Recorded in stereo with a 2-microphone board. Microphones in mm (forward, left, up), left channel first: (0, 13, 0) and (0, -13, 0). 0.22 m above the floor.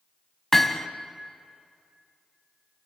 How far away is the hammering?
About 1.1 m.